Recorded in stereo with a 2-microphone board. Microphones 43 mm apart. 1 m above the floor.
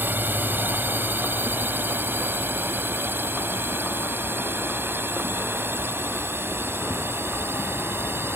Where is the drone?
50° right (ahead or behind); by 8.4 s 60° right (ahead or behind).